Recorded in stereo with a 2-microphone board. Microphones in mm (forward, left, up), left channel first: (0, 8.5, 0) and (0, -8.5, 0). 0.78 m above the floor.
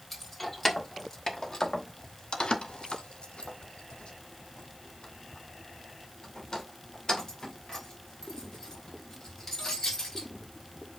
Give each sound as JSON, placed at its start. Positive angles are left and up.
{"t": 0.1, "sound": "keys jangling", "side_deg": 15, "distance_m": 1.6}